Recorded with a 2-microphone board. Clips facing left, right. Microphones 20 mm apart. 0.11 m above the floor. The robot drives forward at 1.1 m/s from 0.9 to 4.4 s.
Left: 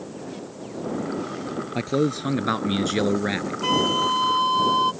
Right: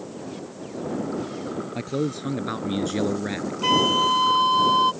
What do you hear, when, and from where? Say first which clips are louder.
1.8 s a man speaking: left 5 dB; 20° left (ahead or behind)
3.6 s a flute: right 2 dB; 10° right (ahead or behind); by 4.9 s 5° right (ahead or behind)